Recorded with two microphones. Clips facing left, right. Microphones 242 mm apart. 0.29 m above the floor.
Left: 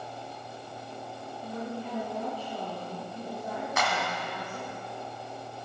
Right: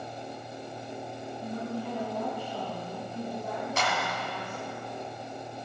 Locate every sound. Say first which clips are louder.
1.4 s a woman speaking: right 2 dB; 60° right (ahead or behind), 3 m; by 4.8 s 40° right (ahead or behind), 3.5 m
3.8 s a clap: left 1 dB; 35° right (ahead or behind), 1.5 m